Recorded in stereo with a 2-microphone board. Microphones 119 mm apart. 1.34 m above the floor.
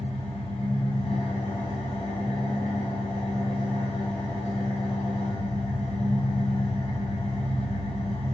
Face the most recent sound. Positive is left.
turn(degrees=55)  # may be behind; listen again after turning